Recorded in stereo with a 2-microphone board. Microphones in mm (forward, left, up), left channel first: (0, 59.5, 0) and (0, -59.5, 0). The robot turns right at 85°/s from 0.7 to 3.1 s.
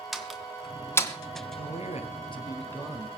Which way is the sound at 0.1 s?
Centre (ahead or behind).